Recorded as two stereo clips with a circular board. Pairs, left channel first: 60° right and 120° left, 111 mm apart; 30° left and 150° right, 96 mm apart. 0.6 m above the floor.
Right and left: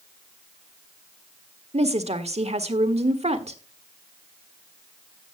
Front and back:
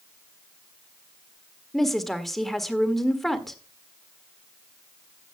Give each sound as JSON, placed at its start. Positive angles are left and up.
{"t": 1.7, "sound": "a woman speaking", "azimuth_deg": 120, "distance_m": 1.4}